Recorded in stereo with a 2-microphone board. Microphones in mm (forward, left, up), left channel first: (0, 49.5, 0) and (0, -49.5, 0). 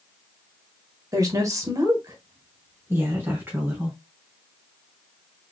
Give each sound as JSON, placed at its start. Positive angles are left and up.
{"t": 1.1, "sound": "a woman speaking", "side_deg": -35, "distance_m": 1.4}